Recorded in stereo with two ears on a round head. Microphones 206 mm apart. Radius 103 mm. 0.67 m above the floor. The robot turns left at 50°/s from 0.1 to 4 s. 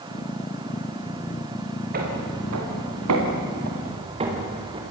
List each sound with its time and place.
1.9 s footsteps: 40° right (ahead or behind), 7.5 m; by 4.8 s 20° right (ahead or behind), 5.5 m